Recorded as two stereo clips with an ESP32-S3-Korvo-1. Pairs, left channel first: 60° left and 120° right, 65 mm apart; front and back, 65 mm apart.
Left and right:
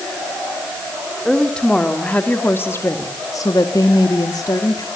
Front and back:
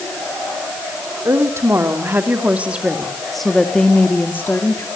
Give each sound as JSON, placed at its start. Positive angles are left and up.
{"t": 1.2, "sound": "a woman speaking", "azimuth_deg": 140, "distance_m": 3.5}